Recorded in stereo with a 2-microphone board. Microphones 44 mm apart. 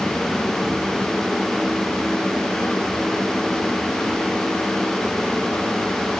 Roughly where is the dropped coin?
I don't hear a dropped coin.